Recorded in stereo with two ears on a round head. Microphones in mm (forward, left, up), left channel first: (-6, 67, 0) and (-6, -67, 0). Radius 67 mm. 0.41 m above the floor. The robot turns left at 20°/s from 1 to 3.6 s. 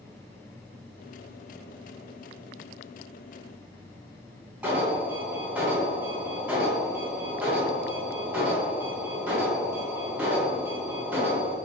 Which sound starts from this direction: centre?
An alarm, at 4.6 s.